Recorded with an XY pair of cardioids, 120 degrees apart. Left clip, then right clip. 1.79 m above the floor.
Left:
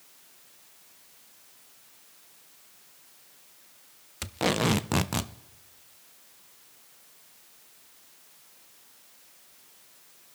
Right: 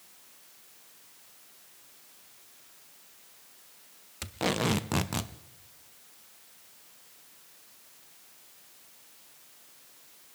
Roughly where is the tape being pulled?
Ahead.